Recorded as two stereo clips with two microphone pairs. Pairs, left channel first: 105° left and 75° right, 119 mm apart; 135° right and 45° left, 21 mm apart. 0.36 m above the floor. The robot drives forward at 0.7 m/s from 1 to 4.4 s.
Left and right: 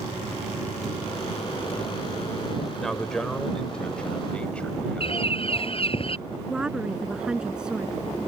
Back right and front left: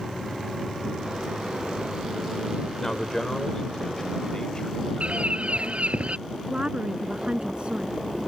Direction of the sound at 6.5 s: 10° left.